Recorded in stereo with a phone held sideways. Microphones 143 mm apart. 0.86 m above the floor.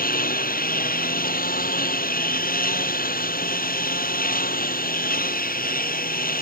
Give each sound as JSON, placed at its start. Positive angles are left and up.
{"t": 0.0, "sound": "a lawn mower", "side_deg": 85}